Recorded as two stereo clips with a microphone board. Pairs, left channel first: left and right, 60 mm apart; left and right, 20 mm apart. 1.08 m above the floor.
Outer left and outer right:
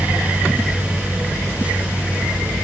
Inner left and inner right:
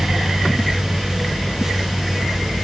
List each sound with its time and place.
Only background noise.